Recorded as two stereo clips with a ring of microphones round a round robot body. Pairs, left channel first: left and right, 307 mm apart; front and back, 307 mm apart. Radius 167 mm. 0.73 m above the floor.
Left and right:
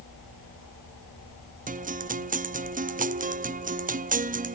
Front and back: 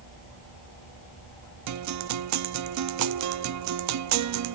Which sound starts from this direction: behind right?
A guitar, at 1.7 s.